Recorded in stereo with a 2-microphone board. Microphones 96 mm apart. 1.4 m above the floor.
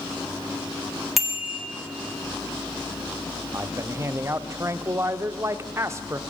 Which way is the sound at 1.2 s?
Centre (ahead or behind).